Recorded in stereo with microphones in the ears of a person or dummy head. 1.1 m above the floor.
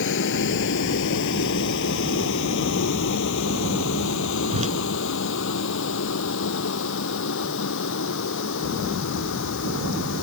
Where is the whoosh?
40° right (ahead or behind).